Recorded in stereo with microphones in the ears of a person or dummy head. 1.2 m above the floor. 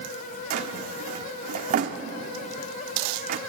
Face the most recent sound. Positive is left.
turn(degrees=-55)  # may be behind; listen again after turning